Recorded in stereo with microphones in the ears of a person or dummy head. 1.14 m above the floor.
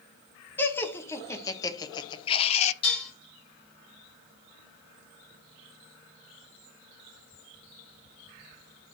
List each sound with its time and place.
0.6 s laughter: 10° left (ahead or behind), 1.7 m; by 2.7 s 35° left (ahead or behind), 0.7 m
2.8 s dishes clattering: 30° left (ahead or behind), 4.5 m